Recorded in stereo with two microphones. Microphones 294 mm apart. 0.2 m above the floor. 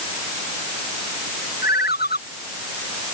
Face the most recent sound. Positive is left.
turn(degrees=35)  # may be behind; listen again after turning